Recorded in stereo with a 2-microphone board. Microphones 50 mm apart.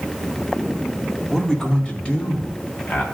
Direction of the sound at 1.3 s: 5° left (ahead or behind).